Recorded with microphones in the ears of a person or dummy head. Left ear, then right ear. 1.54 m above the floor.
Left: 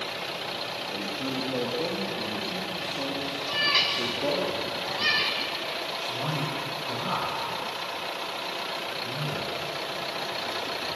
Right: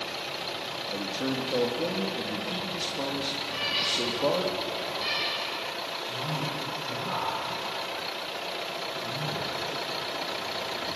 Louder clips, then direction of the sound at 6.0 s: Left 2 dB; 60° left (ahead or behind).